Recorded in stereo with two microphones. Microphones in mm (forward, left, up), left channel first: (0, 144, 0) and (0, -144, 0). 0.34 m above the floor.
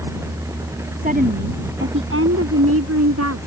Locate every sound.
1.0 s a woman speaking: 30° right (ahead or behind); by 3.4 s 65° right (ahead or behind)